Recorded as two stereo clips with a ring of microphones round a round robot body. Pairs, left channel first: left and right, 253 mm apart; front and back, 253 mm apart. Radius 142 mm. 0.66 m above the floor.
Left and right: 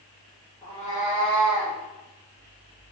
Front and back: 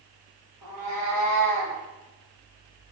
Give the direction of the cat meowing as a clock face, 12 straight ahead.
6 o'clock.